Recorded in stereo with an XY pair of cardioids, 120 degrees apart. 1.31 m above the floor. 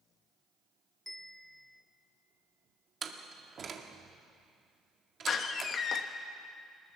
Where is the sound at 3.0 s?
40° right, 2.0 m.